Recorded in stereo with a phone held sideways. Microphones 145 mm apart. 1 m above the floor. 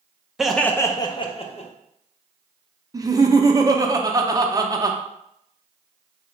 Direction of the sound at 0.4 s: 5° right (ahead or behind).